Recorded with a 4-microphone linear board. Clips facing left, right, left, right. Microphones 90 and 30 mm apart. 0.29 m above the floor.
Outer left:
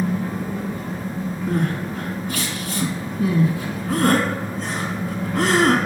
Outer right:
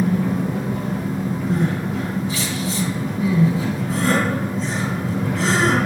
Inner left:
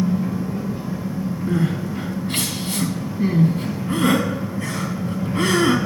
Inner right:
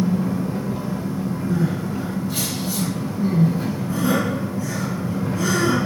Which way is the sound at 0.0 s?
85° right.